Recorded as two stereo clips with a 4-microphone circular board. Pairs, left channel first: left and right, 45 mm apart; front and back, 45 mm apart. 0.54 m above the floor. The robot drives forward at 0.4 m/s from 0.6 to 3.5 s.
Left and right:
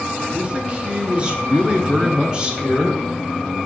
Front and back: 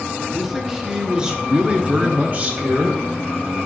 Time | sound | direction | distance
0.3 | a man speaking | 105° right | 1.1 m